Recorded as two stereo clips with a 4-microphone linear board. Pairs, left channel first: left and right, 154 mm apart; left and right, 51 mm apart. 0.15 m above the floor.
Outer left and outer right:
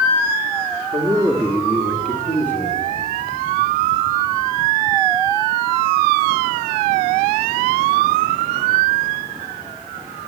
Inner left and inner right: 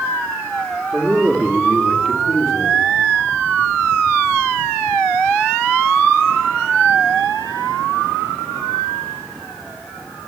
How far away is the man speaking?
About 2.0 m.